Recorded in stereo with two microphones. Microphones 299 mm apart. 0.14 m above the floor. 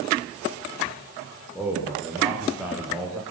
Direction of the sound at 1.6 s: Centre (ahead or behind).